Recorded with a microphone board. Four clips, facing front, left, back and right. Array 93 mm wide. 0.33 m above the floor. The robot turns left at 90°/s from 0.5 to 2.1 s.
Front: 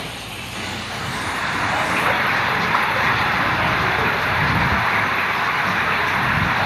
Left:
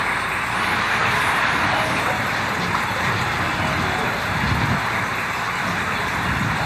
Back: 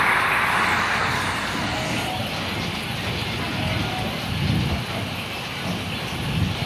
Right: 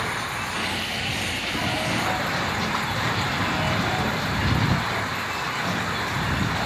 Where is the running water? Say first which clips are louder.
Left 5 dB, back 12 dB; 160° left; by 6.7 s 15° left.